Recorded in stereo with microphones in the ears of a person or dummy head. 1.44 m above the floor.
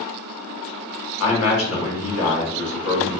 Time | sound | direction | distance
1.2 | a man speaking | 85° left | 1.0 m